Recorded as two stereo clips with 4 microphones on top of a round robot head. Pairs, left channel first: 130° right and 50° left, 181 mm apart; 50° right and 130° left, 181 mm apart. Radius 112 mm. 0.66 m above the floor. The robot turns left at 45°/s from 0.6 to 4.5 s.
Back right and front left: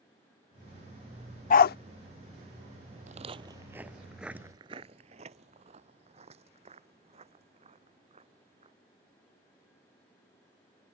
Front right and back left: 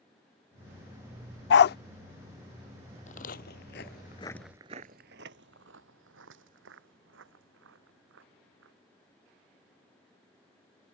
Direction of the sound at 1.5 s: 80° right.